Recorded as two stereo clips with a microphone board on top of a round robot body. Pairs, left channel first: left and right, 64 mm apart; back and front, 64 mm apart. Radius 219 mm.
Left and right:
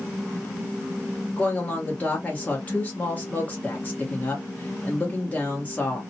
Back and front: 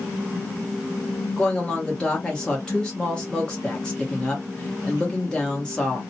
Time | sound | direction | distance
1.4 | a woman speaking | 115° left | 1.2 m